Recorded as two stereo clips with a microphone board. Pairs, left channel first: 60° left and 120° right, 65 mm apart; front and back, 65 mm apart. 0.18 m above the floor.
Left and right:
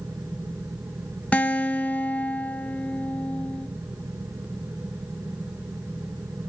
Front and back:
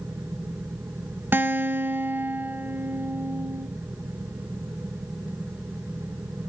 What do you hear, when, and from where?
1.3 s a guitar: 130° left, 0.6 m